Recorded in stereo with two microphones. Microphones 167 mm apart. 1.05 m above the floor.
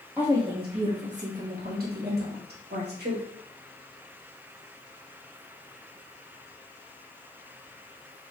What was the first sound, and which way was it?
A woman speaking, 15° right (ahead or behind).